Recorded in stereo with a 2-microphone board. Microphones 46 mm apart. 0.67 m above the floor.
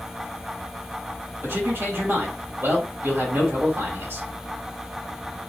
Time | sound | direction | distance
1.4 | a man speaking | 65° right (ahead or behind) | 1.8 m